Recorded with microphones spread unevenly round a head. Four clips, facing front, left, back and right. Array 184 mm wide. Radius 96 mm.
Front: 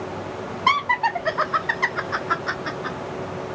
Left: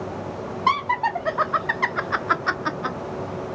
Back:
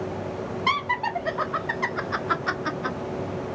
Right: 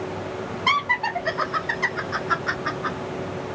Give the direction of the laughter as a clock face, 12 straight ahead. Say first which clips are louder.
Left 3 dB, front 6 dB; 11 o'clock.